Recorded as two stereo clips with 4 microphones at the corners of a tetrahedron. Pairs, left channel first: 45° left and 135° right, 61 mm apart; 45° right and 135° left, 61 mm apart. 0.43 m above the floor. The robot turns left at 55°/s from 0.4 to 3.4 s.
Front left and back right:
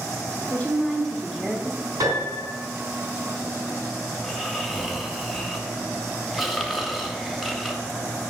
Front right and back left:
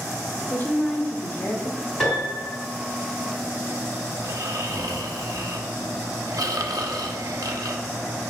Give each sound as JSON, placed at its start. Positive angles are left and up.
{"t": 0.5, "sound": "a woman speaking", "azimuth_deg": 5, "distance_m": 0.9}
{"t": 2.0, "sound": "a piano", "azimuth_deg": -130, "distance_m": 3.5}
{"t": 4.2, "sound": "snoring", "azimuth_deg": 135, "distance_m": 0.7}